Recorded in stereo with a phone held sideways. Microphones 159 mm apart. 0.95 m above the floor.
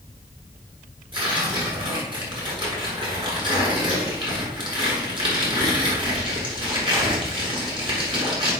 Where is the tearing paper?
30° right (ahead or behind), 8 m.